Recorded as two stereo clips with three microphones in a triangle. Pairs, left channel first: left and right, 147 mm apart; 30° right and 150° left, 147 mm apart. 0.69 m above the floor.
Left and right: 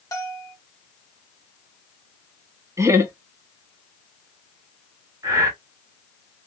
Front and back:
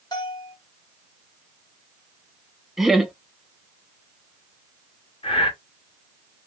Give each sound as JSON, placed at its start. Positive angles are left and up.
{"t": 0.1, "sound": "a bell", "azimuth_deg": 25, "distance_m": 0.8}
{"t": 2.8, "sound": "laughter", "azimuth_deg": -125, "distance_m": 0.6}
{"t": 5.2, "sound": "breathing", "azimuth_deg": -35, "distance_m": 0.9}